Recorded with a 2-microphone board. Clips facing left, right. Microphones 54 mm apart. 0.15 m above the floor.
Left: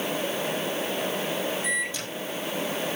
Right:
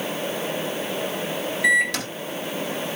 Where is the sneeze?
I don't hear a sneeze.